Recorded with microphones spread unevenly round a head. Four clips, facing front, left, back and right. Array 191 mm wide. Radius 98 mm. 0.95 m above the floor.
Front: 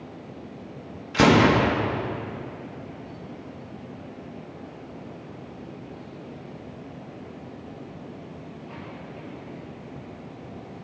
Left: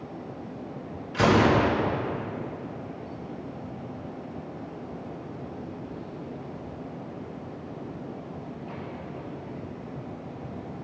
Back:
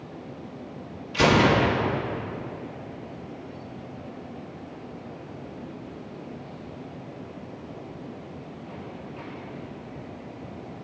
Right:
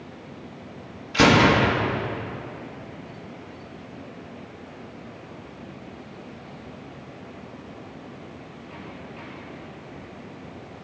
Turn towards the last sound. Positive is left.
turn(degrees=-30)